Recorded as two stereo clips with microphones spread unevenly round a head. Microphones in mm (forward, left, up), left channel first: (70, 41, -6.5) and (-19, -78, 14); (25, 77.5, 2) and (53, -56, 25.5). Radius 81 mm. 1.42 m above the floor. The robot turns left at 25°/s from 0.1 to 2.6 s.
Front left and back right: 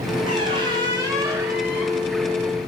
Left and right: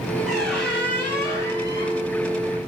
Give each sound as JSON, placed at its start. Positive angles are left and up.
{"t": 0.3, "sound": "a squeak", "azimuth_deg": -155, "distance_m": 1.5}